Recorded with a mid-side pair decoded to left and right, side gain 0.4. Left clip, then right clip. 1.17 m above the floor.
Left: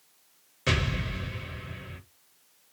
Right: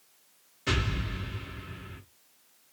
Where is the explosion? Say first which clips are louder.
Left 2 dB; 65° left, 1.9 m.